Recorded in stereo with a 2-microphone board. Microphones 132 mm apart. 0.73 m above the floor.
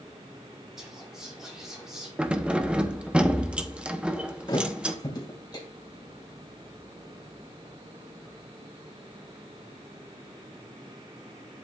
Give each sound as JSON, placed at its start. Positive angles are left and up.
{"t": 0.8, "sound": "whispering", "side_deg": -5, "distance_m": 4.0}
{"t": 2.2, "sound": "keys jangling", "side_deg": -10, "distance_m": 0.7}
{"t": 4.5, "sound": "a thud", "side_deg": 30, "distance_m": 2.0}